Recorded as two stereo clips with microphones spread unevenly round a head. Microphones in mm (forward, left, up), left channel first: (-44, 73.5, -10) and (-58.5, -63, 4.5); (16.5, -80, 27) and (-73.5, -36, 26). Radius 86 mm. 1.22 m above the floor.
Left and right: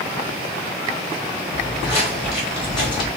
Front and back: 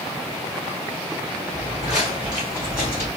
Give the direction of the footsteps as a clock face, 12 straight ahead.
11 o'clock.